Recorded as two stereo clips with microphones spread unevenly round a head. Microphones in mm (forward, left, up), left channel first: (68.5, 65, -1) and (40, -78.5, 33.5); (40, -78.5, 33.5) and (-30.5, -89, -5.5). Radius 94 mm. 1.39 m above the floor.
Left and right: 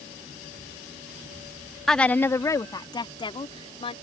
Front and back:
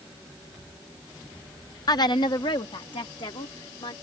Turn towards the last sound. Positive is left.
turn(degrees=25)